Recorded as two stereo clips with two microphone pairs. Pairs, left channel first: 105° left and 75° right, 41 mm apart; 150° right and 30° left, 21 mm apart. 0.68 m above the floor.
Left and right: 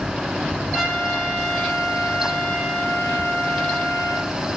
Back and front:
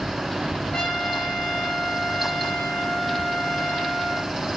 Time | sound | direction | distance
0.7 | a trumpet | 150° right | 6.5 m